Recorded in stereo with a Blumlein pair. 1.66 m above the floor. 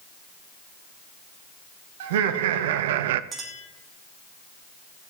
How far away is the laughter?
About 1.7 m.